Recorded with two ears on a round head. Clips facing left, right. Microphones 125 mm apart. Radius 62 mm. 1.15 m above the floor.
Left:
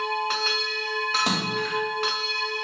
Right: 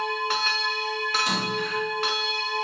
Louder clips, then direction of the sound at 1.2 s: Left 1 dB; 55° left (ahead or behind).